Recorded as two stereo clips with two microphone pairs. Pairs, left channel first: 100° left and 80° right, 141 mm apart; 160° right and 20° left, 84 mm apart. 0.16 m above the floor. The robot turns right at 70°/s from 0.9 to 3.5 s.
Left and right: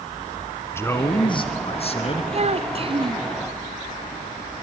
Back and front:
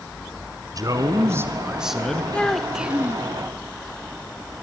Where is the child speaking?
90° right, 0.9 m; by 3.3 s 25° right, 0.9 m.